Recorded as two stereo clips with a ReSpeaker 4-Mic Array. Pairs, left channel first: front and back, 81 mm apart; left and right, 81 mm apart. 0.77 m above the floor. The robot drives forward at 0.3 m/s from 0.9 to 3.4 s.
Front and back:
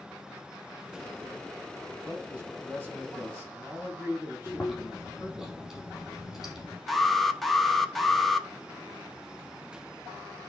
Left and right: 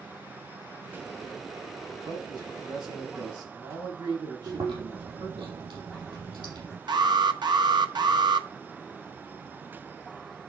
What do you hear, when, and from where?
1.9 s a man speaking: 105° right, 5.5 m; by 5.5 s 110° right, 5.5 m
4.5 s chewing: 90° right, 5 m
6.9 s an alarm: 90° right, 1.0 m